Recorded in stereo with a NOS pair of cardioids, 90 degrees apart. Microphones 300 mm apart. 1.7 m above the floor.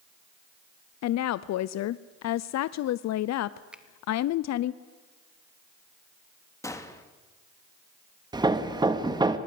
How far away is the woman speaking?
About 0.6 m.